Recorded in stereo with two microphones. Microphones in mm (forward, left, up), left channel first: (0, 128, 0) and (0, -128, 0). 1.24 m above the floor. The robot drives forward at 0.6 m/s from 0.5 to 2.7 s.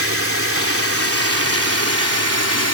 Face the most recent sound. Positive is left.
turn(degrees=75)  # may be behind; listen again after turning